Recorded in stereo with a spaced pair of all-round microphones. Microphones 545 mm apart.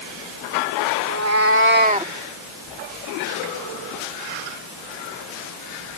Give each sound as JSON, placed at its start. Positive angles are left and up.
{"t": 1.0, "sound": "a cat meowing", "side_deg": -30}